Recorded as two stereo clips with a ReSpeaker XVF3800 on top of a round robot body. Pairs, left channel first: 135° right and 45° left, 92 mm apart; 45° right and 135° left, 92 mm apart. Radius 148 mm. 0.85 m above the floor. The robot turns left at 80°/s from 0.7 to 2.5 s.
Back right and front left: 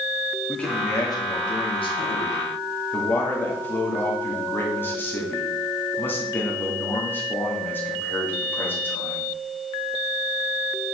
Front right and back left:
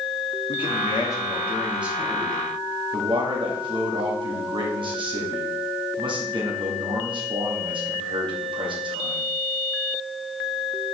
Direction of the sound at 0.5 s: 60° right.